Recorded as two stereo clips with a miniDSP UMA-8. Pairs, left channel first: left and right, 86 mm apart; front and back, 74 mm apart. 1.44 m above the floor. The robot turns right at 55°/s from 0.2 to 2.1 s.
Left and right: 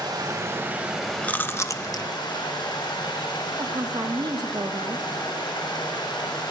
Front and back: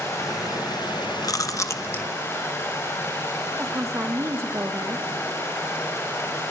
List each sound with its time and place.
0.0 s running water: 50° right, 6.5 m; by 6.5 s 55° left, 6.5 m
1.2 s chewing: 20° left, 0.9 m; by 2.1 s 65° left, 0.9 m
3.6 s a woman speaking: 130° right, 1.7 m